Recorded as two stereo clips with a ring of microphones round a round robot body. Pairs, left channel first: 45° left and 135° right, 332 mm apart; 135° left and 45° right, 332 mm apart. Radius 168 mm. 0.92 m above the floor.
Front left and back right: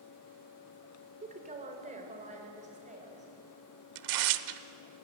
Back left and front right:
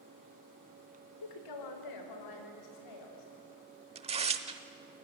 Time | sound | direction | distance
1.2 | a woman speaking | 155° left | 3 m
4.0 | tearing paper | 115° right | 1.0 m